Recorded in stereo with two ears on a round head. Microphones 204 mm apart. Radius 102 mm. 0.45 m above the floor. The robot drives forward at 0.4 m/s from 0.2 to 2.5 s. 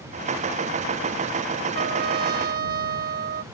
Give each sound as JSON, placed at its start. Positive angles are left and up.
{"t": 1.8, "sound": "a trumpet", "side_deg": -50}